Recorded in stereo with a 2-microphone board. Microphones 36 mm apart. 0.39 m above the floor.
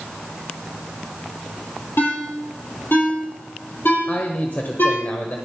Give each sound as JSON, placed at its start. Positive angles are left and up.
{"t": 2.0, "sound": "a ringtone", "side_deg": 70, "distance_m": 6.0}
{"t": 4.1, "sound": "a man speaking", "side_deg": 50, "distance_m": 1.2}